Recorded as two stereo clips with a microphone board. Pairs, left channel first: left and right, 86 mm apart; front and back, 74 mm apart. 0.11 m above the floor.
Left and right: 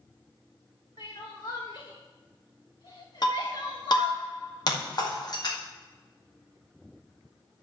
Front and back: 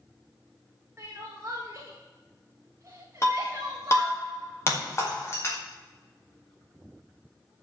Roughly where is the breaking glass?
Ahead left.